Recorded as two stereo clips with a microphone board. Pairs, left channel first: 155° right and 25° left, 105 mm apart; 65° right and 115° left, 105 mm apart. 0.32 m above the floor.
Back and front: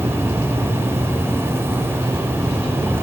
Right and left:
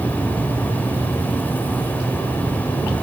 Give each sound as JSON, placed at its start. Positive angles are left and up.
{"t": 0.0, "sound": "an insect", "azimuth_deg": -15, "distance_m": 0.7}